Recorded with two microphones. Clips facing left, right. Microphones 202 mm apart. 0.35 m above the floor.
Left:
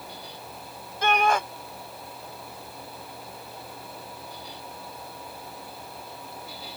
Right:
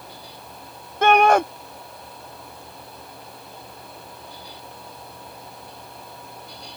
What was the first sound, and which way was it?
A shout, 60° right (ahead or behind).